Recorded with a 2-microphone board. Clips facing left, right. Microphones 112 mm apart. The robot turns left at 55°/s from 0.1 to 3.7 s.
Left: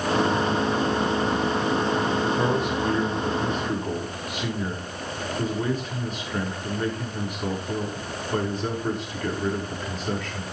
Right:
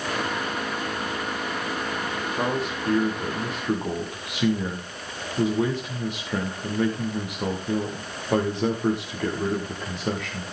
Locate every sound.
2.4 s a man speaking: 20° right, 10 m; by 10.4 s 95° right, 10 m